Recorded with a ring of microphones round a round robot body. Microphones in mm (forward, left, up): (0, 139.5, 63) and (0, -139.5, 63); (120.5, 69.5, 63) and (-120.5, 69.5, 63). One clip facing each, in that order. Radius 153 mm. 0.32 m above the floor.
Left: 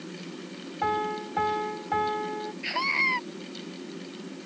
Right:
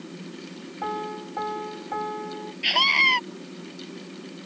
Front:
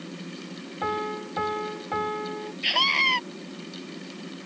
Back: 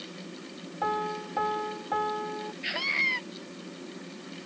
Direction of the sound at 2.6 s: 50° right.